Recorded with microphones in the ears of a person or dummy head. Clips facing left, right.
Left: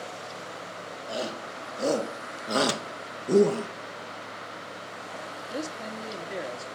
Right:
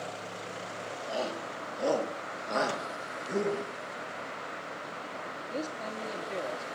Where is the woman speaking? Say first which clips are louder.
Left 2 dB; 10° left (ahead or behind), 2 m.